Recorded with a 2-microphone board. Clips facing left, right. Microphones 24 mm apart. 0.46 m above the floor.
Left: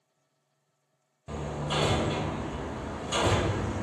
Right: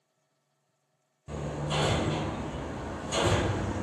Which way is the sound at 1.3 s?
20° left (ahead or behind).